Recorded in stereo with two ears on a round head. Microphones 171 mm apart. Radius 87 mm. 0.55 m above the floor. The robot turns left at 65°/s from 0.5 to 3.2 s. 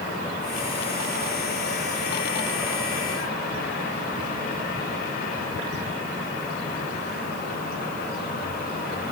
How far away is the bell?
No bell in this recording.